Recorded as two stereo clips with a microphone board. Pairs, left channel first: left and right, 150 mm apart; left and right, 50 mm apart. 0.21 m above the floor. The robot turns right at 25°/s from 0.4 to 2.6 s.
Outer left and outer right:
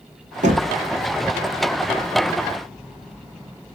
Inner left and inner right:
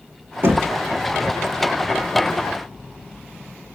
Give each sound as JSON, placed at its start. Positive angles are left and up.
{"t": 0.4, "sound": "knocking", "side_deg": -50, "distance_m": 1.7}